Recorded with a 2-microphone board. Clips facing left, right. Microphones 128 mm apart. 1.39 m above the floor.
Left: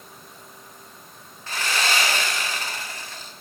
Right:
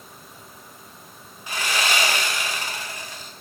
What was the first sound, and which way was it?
Sawing, 15° right (ahead or behind).